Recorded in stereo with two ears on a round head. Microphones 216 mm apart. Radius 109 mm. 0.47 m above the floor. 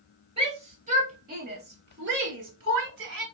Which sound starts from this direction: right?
A shout, at 0.4 s.